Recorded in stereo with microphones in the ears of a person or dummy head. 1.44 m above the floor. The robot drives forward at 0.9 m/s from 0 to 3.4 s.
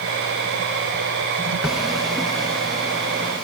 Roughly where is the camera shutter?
Centre.